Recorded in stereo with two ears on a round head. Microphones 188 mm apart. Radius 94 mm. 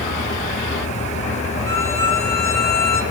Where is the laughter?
I don't hear laughter.